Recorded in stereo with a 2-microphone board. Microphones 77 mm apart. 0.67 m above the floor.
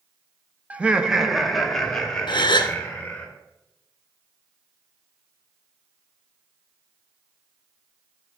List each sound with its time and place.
0.7 s laughter: 20° right (ahead or behind), 0.5 m; by 3.3 s 15° left (ahead or behind), 1.9 m
2.3 s a gasp: 75° left (ahead or behind), 0.6 m